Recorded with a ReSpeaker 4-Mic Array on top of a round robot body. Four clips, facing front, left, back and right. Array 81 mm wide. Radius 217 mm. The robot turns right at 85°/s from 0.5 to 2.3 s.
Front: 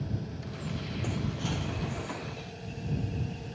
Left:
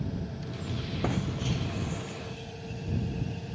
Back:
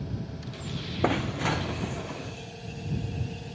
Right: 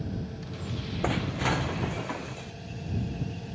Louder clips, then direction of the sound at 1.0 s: Right 4 dB, back 10 dB; 170° right.